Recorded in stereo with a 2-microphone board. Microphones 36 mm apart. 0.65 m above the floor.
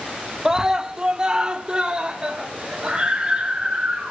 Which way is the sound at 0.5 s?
15° right (ahead or behind).